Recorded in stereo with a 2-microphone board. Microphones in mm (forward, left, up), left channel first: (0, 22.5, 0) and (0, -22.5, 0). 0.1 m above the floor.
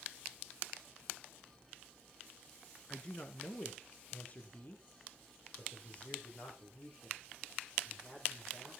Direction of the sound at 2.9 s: 20° left (ahead or behind).